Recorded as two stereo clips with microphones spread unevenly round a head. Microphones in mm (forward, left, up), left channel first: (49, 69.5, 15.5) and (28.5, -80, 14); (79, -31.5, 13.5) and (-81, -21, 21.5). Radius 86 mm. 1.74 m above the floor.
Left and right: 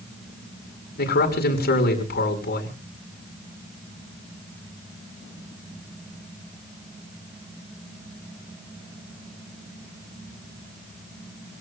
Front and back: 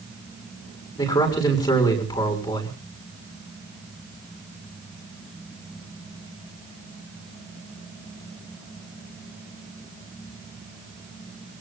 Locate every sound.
1.0 s a man speaking: 65° left, 6 m